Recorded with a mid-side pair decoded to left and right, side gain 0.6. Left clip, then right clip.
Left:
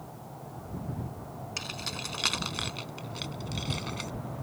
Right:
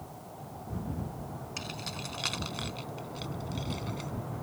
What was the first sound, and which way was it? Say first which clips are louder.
Keys jangling: left 4 dB; 25° left.